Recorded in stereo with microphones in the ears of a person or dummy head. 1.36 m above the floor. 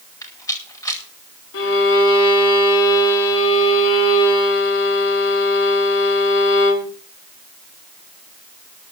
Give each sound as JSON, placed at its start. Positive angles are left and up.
{"t": 0.2, "sound": "a rattle", "side_deg": 15, "distance_m": 4.5}
{"t": 1.5, "sound": "a violin", "side_deg": 75, "distance_m": 3.5}